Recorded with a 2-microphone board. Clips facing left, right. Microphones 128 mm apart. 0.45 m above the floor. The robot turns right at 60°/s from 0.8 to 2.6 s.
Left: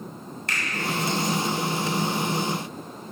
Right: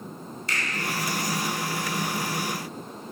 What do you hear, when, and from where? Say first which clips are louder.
0.5 s a finger snap: even; 65° left (ahead or behind), 2.0 m